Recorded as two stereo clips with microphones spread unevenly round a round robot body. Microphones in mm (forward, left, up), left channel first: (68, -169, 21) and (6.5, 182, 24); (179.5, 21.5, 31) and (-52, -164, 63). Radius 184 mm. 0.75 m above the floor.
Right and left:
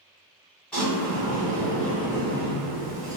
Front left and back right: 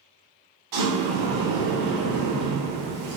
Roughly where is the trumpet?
No trumpet in this recording.